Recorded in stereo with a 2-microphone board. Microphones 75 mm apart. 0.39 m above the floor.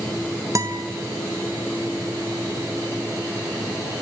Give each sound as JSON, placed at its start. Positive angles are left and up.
{"t": 0.6, "sound": "a guitar", "side_deg": -45, "distance_m": 1.9}